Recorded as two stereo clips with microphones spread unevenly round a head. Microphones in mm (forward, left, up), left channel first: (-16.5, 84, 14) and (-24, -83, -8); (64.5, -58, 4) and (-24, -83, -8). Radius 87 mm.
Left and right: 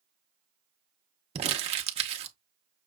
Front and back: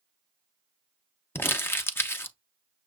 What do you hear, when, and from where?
1.4 s crumpling: 50° right, 0.8 m